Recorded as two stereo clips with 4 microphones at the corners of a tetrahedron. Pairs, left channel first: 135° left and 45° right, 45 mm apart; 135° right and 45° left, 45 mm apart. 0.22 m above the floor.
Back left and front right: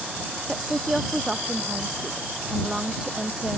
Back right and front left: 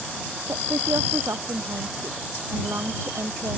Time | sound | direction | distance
0.5 | a woman speaking | 35° left | ?